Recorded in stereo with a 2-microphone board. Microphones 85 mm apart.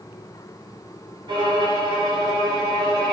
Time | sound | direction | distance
1.3 | a violin | 70° right (ahead or behind) | 1.2 m